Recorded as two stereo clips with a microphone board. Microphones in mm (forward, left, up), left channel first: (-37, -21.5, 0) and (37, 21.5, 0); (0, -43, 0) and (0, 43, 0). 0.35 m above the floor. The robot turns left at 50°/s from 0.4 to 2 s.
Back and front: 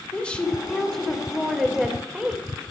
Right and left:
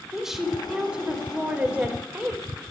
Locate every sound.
0.1 s a woman speaking: 165° left, 1.4 m; by 2.4 s 85° left, 1.4 m